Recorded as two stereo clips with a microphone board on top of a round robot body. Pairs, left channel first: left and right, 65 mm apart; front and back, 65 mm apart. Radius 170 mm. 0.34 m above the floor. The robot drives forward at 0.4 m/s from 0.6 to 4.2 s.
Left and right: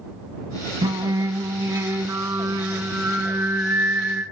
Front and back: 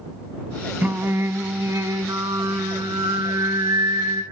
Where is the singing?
115° right, 0.6 m; by 4.2 s 160° right, 1.7 m.